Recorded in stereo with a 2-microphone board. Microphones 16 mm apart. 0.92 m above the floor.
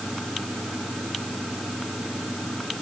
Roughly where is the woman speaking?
No woman speaking in this recording.